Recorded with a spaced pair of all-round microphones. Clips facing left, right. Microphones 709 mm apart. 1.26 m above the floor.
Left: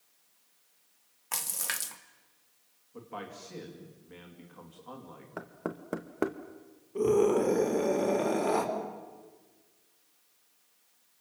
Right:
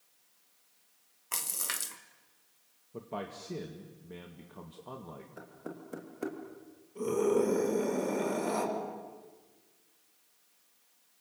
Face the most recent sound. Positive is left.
turn(degrees=80)